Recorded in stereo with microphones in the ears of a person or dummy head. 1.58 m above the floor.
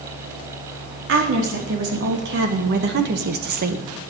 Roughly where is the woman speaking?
Right.